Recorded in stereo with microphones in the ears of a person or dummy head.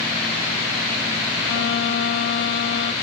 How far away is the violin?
About 0.8 m.